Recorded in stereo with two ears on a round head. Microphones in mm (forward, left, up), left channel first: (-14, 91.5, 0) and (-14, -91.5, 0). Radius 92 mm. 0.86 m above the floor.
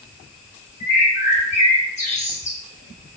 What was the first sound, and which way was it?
A bird, 35° left (ahead or behind).